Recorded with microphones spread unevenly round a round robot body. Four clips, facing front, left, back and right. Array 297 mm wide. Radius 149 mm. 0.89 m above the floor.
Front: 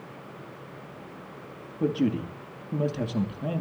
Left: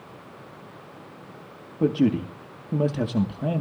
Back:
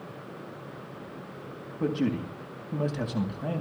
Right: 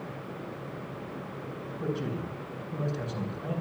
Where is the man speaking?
85° left, 2 m.